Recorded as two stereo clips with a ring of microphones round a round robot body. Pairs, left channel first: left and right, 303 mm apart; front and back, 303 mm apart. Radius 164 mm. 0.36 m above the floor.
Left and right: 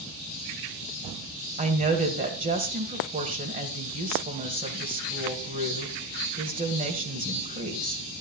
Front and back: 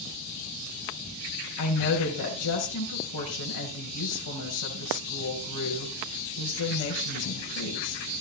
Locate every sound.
1.6 s a woman speaking: 30° right, 1.9 m